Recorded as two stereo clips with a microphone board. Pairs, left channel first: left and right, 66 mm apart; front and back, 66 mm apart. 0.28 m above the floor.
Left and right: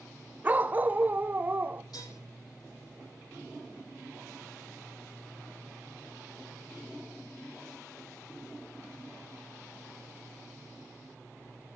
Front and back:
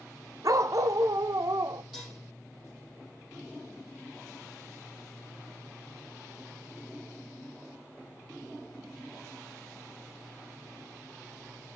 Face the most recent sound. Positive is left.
turn(degrees=95)